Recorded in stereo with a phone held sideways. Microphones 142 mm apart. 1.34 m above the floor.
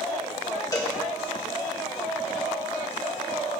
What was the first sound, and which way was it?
A cowbell, 25° left (ahead or behind).